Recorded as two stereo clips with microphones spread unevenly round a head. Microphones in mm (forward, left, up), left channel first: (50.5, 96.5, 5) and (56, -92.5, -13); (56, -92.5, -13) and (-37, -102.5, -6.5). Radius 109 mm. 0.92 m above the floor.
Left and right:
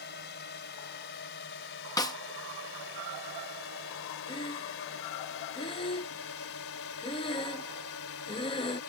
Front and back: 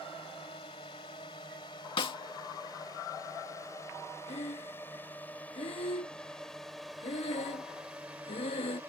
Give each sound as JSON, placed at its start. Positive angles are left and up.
{"t": 0.0, "sound": "a drone", "azimuth_deg": 65}
{"t": 2.0, "sound": "a snare drum", "azimuth_deg": 20}
{"t": 4.3, "sound": "breathing", "azimuth_deg": 25}